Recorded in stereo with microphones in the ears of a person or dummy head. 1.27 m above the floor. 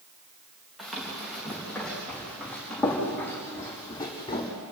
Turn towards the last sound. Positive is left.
turn(degrees=20)  # may be behind; listen again after turning